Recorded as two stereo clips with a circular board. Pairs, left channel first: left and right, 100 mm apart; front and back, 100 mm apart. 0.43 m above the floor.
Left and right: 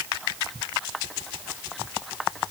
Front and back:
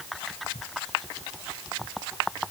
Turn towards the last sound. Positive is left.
No sound to turn to.